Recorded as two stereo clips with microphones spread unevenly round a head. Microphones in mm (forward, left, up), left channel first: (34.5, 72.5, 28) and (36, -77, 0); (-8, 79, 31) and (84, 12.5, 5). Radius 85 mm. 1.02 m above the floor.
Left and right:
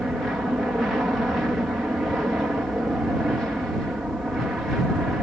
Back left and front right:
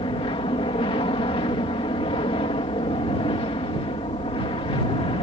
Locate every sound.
0.0 s an aircraft: 175° right